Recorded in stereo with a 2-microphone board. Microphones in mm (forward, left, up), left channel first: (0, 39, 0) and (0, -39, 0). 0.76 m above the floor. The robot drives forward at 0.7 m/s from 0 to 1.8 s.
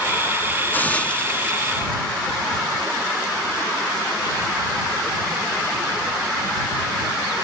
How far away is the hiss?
About 0.6 m.